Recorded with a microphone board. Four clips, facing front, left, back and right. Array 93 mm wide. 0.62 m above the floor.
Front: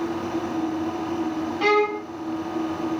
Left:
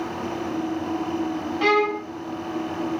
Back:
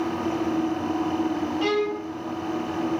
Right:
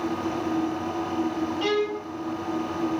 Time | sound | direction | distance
1.6 | a violin | 55° left | 0.8 m